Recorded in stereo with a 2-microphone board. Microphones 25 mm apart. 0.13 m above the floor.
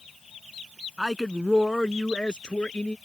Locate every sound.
1.0 s a man speaking: 20° right (ahead or behind); by 3.0 s 55° left (ahead or behind)